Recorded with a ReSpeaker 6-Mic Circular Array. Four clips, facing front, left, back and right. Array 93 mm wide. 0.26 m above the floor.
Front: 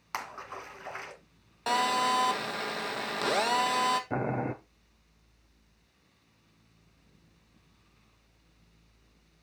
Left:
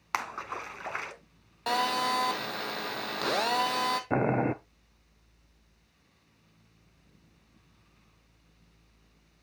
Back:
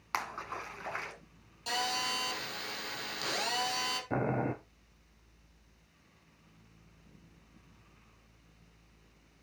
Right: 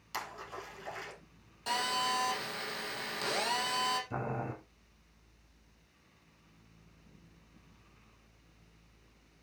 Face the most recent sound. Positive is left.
turn(degrees=85)